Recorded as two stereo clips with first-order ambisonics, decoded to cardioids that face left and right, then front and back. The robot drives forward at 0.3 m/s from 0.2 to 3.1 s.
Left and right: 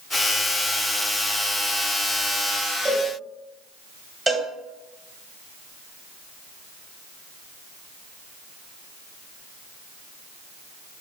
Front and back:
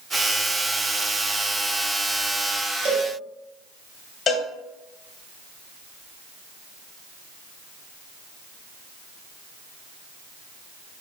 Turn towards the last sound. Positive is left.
turn(degrees=-35)